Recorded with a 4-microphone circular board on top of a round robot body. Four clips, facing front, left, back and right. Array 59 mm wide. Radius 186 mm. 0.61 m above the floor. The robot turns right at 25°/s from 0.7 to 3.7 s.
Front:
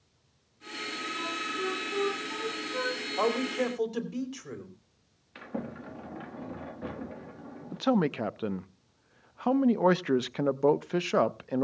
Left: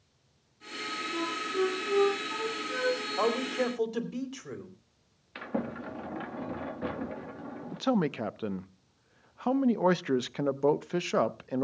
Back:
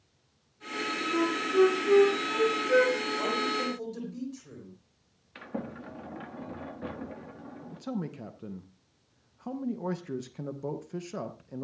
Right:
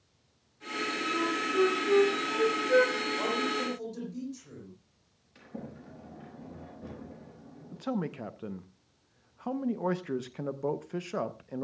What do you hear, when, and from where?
1.1 s a flute: 175° left, 2 m; by 3.0 s 135° right, 2 m
3.2 s a man speaking: 40° left, 3 m; by 4.7 s 55° left, 3 m
5.3 s a sliding door: 95° left, 1.4 m
7.7 s a man speaking: 30° left, 0.8 m